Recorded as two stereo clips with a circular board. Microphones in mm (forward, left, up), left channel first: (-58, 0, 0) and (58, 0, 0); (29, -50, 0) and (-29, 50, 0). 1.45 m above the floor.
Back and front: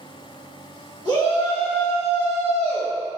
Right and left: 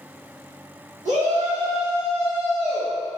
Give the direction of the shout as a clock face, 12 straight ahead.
8 o'clock.